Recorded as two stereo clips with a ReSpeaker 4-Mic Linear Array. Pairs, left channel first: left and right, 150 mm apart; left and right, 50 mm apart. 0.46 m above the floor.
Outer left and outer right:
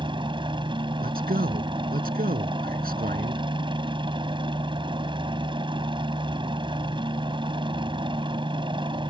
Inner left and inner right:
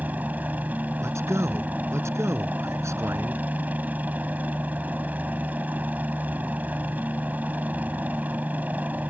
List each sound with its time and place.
0.0 s a helicopter: 30° right (ahead or behind)
1.0 s a man speaking: 80° right